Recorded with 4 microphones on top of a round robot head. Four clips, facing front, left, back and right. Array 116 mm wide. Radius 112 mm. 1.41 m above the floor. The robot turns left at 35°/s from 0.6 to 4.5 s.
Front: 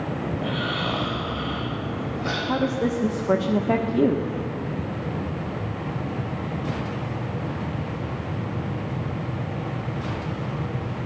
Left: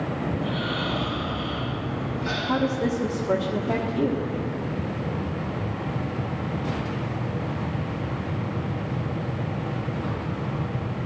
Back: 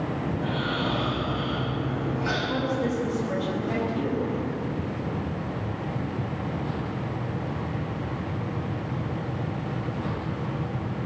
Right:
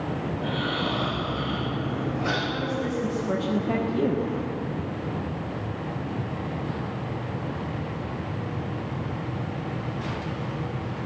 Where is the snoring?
5° left, 8.5 m; by 2.4 s 55° right, 8.5 m.